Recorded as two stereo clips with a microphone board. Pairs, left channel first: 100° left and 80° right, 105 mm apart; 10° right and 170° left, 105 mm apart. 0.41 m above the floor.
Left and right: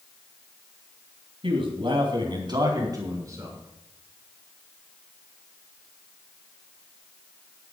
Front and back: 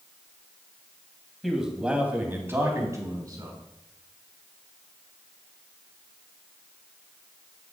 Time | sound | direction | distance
1.4 | a man speaking | 100° right | 3 m